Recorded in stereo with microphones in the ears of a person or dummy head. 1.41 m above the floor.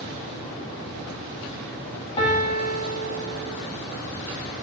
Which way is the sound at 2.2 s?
25° left (ahead or behind).